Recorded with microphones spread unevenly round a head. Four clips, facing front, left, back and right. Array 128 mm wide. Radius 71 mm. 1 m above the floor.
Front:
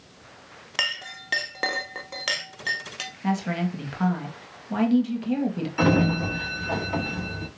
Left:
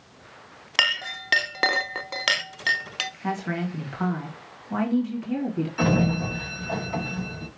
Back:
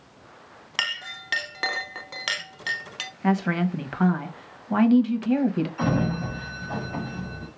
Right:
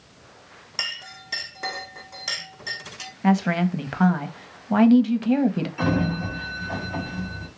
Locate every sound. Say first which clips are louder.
0.8 s a clink: left 10 dB, even; 75° left, 0.8 m
3.2 s a woman speaking: right 8 dB, back 3 dB; 95° right, 1.7 m
5.8 s a sliding door: left 2 dB, front 8 dB; 15° left, 2.5 m